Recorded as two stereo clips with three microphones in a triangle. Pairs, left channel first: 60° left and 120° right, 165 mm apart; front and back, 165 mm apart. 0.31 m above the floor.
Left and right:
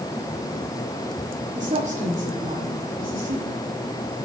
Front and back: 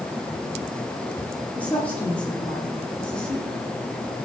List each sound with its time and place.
1.5 s a woman speaking: 80° right, 9 m; by 3.6 s 85° right, 10.5 m